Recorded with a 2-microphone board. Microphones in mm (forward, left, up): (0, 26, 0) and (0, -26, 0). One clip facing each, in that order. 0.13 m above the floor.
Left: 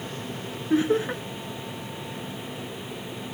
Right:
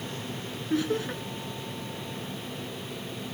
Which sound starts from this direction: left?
Laughter, at 0.7 s.